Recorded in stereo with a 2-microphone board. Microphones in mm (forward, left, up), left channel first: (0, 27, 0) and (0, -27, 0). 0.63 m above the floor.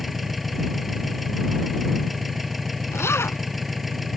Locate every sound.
0.0 s an engine running: centre (ahead or behind)
2.9 s a zipper: 55° left (ahead or behind)